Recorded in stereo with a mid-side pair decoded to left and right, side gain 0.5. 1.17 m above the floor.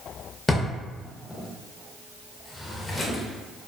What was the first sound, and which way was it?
A drawer, 25° left.